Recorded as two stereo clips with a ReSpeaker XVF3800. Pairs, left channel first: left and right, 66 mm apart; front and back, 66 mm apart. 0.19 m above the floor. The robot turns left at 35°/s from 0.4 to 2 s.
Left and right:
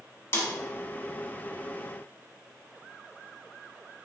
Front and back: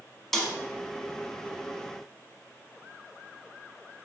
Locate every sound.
0.3 s a snare drum: 80° left, 0.9 m